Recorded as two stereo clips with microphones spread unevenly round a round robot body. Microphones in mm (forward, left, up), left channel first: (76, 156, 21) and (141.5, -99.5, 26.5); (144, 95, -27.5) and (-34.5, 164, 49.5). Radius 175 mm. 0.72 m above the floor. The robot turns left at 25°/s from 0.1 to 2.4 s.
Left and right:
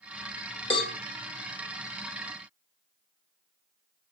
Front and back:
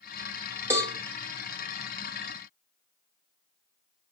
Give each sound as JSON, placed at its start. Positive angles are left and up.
{"t": 0.7, "sound": "a cowbell", "azimuth_deg": 55, "distance_m": 1.2}